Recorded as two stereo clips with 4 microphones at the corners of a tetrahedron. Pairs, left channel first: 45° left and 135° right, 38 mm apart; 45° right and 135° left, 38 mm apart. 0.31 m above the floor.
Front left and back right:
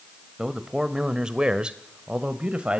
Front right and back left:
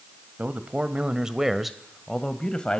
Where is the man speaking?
150° left, 1.5 m; by 2.8 s 95° right, 1.5 m.